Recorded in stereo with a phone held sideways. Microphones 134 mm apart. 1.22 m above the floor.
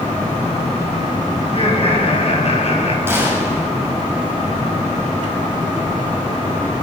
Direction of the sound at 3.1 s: 20° right (ahead or behind).